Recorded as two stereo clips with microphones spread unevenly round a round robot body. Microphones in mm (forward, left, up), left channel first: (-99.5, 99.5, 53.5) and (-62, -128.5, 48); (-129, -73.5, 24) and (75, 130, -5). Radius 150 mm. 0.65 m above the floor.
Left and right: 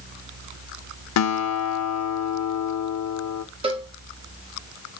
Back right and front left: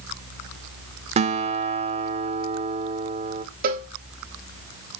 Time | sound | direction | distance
1.2 | a guitar | 115° left | 0.5 m
3.6 | a cowbell | 15° right | 0.7 m